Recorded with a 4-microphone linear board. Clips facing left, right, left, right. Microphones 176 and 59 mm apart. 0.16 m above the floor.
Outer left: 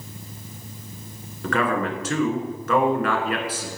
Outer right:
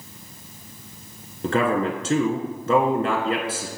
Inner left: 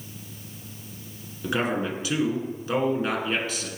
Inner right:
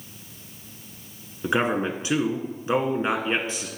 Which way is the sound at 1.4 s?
25° right (ahead or behind).